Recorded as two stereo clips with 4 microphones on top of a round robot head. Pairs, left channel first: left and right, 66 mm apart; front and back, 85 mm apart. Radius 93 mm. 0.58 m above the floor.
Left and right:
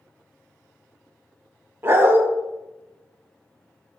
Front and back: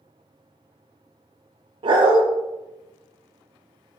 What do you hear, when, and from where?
1.8 s a dog barking: 150° right, 0.7 m